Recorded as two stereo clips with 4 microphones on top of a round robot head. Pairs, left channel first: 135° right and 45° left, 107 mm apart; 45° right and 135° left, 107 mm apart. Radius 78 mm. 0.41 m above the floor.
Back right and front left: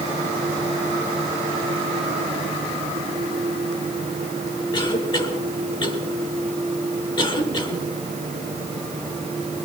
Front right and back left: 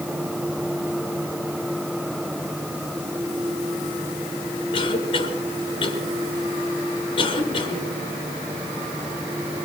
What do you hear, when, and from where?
4.7 s a cough: 85° right, 7.5 m